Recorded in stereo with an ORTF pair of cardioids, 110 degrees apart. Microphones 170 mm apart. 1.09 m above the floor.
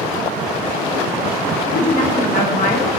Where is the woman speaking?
50° left, 1.0 m.